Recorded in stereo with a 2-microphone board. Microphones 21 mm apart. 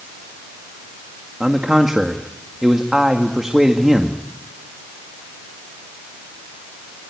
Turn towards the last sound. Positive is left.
turn(degrees=-30)  # may be behind; listen again after turning